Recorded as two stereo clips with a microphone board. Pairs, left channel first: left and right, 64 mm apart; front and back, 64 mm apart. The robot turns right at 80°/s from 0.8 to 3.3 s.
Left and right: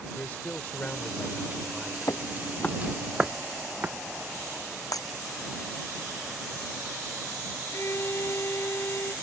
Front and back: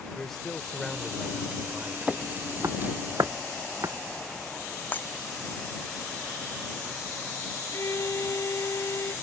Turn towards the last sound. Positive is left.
turn(degrees=45)